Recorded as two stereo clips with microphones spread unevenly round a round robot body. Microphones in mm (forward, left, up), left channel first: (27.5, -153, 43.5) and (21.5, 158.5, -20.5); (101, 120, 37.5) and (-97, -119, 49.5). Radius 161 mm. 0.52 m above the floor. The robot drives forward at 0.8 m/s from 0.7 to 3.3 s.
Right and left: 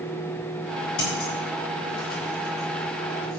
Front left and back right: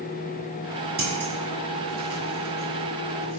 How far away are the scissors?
About 4.5 m.